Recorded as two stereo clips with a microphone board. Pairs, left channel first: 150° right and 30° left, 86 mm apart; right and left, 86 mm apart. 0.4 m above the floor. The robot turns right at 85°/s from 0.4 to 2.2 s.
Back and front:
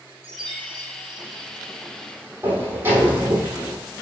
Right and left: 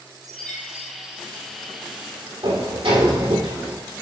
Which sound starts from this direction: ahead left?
A chime, at 0.2 s.